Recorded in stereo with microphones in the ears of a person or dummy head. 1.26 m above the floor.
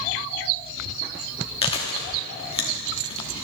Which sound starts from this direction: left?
Chewing, at 1.6 s.